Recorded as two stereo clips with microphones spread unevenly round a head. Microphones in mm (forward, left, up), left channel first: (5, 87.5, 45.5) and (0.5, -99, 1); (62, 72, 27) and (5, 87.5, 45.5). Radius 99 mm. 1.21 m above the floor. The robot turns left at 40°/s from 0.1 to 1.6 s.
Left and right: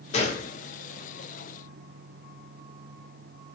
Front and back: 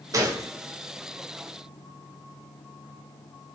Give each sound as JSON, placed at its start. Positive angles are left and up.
{"t": 0.1, "sound": "a gunshot", "azimuth_deg": 145, "distance_m": 0.5}